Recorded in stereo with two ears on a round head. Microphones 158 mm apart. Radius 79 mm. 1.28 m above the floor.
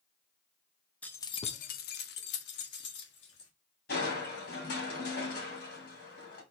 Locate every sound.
1.0 s keys jangling: 10° left (ahead or behind), 0.6 m; by 3.5 s 65° left (ahead or behind), 1.8 m
3.9 s crushing: 60° left (ahead or behind), 2.5 m